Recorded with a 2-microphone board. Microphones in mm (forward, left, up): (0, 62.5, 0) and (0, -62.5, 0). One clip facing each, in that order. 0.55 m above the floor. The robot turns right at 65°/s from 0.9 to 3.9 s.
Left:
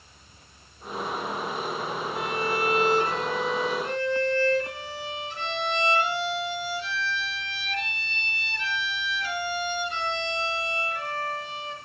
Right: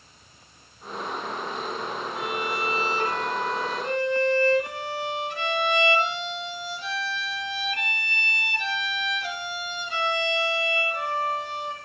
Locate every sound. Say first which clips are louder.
2.1 s a violin: left 2 dB; straight behind, 1.7 m; by 11.8 s 70° right, 1.7 m